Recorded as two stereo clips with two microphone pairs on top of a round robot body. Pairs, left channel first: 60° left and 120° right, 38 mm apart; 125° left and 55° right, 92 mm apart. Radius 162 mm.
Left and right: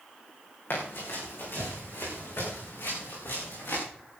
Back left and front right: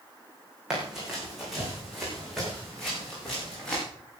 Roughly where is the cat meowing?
I don't hear a cat meowing.